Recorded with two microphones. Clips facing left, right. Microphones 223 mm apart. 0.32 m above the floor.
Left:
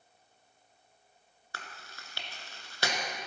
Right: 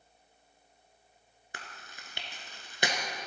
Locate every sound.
1.5 s chewing: 20° right (ahead or behind), 1.2 m